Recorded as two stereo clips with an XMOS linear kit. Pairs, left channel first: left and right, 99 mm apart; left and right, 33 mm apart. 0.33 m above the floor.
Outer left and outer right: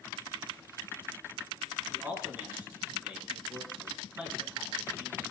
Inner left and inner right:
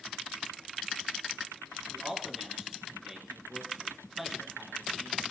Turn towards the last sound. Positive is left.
turn(degrees=-15)  # may be behind; listen again after turning